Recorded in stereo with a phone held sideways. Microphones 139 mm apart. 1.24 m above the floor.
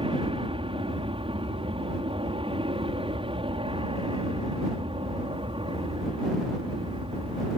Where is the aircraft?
40° right (ahead or behind).